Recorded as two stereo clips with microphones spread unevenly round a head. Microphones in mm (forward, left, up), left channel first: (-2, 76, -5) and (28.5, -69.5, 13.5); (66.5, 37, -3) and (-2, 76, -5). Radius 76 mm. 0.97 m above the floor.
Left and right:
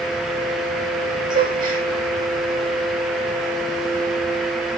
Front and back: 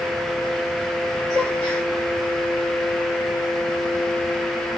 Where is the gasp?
140° right, 5.5 m.